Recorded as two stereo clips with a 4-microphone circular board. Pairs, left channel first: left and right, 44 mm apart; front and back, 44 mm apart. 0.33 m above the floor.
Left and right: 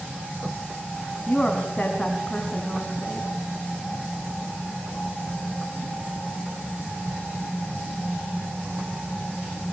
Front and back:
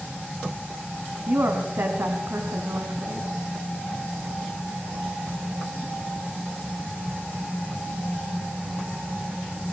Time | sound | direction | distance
1.3 | a woman speaking | 165° left | 2.5 m